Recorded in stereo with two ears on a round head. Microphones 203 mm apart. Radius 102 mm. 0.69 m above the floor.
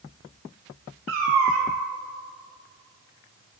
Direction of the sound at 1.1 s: 65° right (ahead or behind).